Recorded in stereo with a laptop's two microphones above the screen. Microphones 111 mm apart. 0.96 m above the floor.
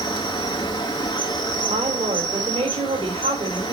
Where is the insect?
40° left (ahead or behind), 2.5 m.